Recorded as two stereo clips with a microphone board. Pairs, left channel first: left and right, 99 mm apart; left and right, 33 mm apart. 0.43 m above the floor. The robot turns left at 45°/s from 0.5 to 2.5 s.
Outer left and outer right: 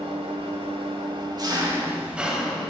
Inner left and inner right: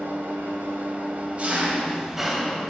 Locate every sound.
0.0 s an engine running: 95° right, 1.1 m; by 2.7 s 175° left, 1.1 m